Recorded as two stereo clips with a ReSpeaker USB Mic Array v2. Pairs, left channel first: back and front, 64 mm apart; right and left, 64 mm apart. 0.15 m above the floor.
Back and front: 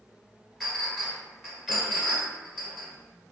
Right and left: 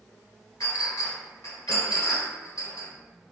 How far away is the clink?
About 1.5 m.